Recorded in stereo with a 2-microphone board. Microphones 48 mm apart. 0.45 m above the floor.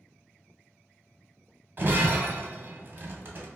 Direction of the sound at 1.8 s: 45° right (ahead or behind).